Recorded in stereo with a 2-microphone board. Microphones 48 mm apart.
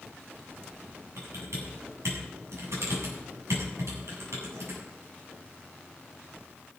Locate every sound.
1.2 s typing on a keyboard: 85° right, 7.5 m